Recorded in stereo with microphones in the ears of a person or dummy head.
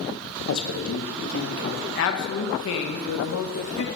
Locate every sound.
0.5 s a man speaking: 65° left (ahead or behind), 0.6 m; by 1.9 s 80° left, 1.5 m
1.9 s a man speaking: 75° left (ahead or behind), 0.6 m